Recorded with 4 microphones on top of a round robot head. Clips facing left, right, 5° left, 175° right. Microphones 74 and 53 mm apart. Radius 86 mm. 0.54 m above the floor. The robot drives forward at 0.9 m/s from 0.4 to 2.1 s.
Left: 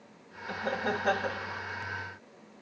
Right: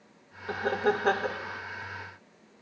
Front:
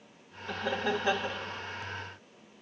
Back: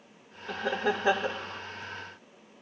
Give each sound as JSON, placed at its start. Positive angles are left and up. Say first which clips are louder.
{"t": 0.5, "sound": "laughter", "louder": "right 5 dB, back 2 dB", "azimuth_deg": -95, "distance_m": 1.8}